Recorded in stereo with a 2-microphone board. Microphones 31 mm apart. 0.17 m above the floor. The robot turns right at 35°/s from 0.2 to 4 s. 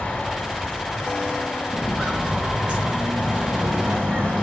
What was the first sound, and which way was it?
Footsteps, centre (ahead or behind).